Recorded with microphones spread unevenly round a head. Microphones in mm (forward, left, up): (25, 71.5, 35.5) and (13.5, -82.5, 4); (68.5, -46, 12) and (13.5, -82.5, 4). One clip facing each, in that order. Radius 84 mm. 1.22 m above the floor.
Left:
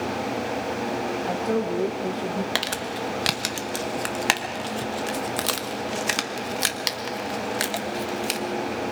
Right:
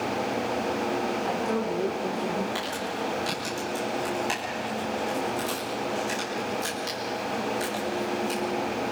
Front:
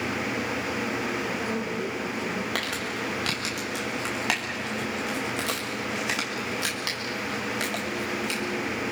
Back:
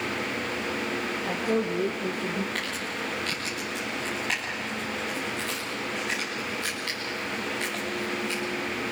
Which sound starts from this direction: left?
Crumpling, at 2.5 s.